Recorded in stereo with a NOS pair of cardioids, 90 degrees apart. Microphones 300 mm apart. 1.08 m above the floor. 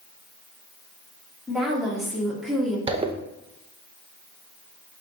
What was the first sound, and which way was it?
A woman speaking, straight ahead.